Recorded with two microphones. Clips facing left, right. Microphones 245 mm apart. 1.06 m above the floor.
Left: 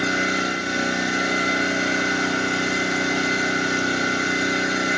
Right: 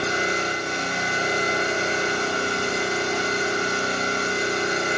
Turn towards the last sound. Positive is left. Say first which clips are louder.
# left 2 dB
turn(degrees=80)